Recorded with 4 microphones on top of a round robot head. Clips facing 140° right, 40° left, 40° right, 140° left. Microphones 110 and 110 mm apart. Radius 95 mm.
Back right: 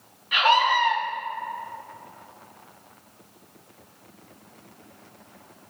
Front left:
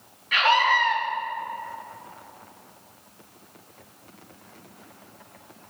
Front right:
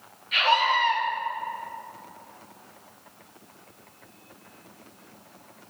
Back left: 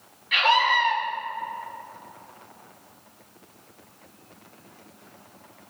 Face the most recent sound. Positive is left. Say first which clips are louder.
# back right 1 dB, back left 1 dB
turn(degrees=150)